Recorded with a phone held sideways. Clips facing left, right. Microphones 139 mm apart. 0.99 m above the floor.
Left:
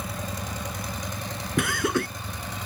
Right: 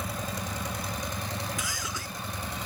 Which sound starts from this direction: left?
Laughter, at 1.6 s.